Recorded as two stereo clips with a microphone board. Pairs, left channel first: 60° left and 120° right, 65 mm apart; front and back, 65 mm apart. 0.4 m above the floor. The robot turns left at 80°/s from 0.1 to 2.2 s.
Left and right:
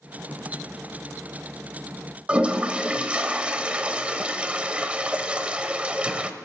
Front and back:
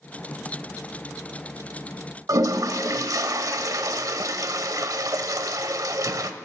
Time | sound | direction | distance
2.3 | a toilet flushing | 170° left | 0.9 m